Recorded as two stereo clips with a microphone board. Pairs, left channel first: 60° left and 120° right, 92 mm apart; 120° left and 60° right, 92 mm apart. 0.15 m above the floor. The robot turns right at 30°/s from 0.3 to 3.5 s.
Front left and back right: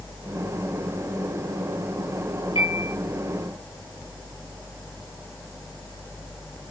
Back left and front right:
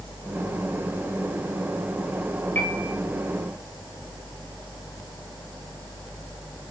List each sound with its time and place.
2.5 s a piano: 50° left, 6 m; by 2.9 s 60° left, 6 m